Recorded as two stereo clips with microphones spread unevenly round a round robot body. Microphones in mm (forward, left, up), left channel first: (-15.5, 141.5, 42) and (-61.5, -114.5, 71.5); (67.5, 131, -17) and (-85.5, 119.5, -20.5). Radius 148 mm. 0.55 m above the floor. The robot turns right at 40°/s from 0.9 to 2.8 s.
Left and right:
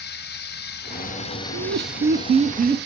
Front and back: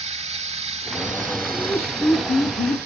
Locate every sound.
0.0 s running water: 135° left, 0.9 m; by 2.9 s 150° right, 0.9 m
1.5 s laughter: 85° right, 0.7 m; by 2.9 s 30° right, 0.7 m